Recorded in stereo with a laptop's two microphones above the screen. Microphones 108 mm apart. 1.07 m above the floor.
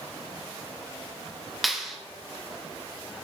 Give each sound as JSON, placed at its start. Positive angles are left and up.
{"t": 1.6, "sound": "a clap", "side_deg": 0, "distance_m": 0.9}